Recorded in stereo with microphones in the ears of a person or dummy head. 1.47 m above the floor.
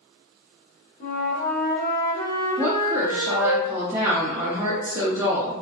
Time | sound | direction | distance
1.0 | a flute | 45° left (ahead or behind) | 0.9 m
2.6 | a woman speaking | 15° right (ahead or behind) | 0.6 m